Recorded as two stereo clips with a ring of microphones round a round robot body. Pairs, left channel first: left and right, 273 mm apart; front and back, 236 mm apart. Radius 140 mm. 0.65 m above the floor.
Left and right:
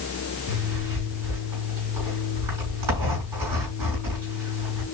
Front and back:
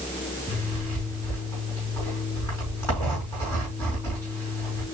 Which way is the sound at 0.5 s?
80° right.